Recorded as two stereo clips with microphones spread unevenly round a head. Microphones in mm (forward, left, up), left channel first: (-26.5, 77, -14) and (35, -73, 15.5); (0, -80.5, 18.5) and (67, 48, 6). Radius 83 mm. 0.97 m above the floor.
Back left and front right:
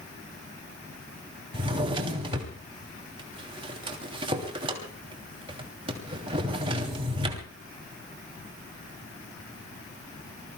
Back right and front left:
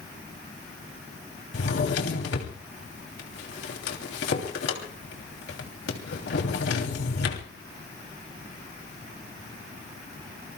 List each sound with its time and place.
1.5 s a drawer: 125° right, 3 m